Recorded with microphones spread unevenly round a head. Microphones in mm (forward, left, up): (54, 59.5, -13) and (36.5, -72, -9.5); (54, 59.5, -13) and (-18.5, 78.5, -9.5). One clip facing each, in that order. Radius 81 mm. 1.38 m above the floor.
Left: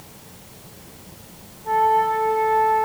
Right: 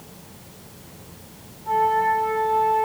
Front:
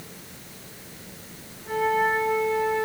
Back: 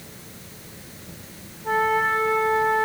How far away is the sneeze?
I don't hear a sneeze.